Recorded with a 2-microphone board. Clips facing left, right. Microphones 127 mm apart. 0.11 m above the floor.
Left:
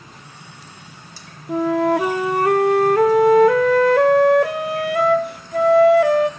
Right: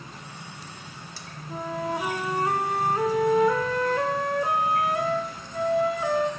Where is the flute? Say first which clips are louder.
Left 13 dB; 75° left (ahead or behind), 0.5 m.